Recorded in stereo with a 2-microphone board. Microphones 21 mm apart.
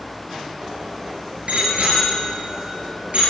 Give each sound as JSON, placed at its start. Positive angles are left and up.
{"t": 0.6, "sound": "a bicycle bell", "side_deg": -85, "distance_m": 6.0}